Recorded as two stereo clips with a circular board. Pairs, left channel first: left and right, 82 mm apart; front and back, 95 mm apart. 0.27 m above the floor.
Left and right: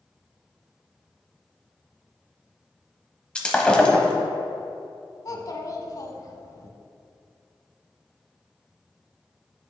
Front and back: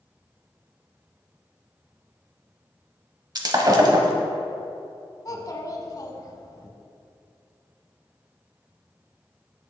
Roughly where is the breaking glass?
Behind.